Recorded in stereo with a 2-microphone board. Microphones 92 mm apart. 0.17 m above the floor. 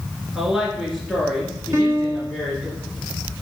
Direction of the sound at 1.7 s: 35° right (ahead or behind).